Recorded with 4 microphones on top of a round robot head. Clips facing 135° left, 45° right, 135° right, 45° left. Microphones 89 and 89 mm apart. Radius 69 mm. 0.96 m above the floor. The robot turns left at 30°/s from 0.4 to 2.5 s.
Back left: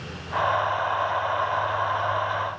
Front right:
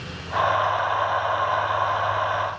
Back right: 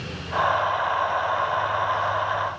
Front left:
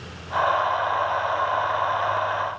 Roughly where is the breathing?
I don't hear breathing.